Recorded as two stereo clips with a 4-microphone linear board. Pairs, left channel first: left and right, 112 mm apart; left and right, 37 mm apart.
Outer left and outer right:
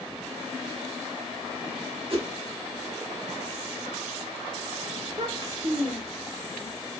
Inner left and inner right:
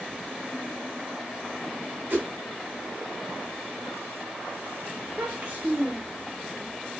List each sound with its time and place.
2.1 s a whoosh: 45° right (ahead or behind), 1.7 m
5.0 s a child speaking: 35° right (ahead or behind), 1.3 m